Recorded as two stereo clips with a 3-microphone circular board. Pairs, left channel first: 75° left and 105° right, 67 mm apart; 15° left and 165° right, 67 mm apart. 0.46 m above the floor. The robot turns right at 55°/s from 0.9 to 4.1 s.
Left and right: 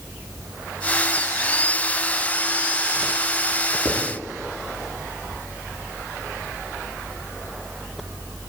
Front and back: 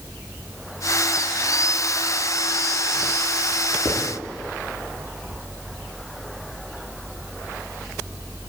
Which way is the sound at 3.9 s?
40° left.